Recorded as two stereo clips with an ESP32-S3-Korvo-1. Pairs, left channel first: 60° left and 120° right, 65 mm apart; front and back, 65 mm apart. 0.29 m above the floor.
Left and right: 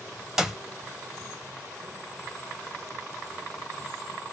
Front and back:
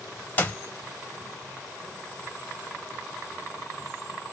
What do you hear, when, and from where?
0.4 s a clap: 45° right, 0.8 m